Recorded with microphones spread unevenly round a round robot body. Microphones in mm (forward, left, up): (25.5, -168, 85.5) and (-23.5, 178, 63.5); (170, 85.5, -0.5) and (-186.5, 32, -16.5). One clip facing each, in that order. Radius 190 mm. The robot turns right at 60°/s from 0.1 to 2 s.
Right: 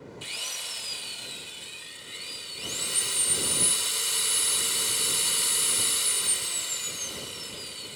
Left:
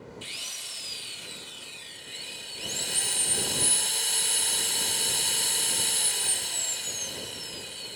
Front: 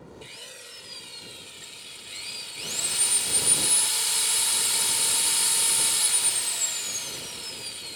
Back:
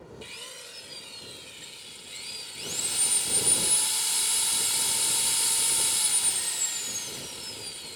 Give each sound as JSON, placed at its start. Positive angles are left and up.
{"t": 0.2, "sound": "a drill", "azimuth_deg": -110}